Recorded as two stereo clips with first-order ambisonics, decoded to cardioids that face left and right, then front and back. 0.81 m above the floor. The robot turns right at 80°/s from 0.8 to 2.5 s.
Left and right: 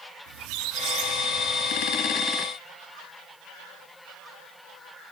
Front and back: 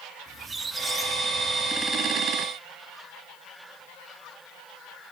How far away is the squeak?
About 1.0 m.